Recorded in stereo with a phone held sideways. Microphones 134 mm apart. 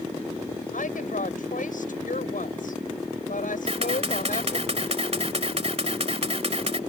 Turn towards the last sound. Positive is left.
turn(degrees=-50)  # may be behind; listen again after turning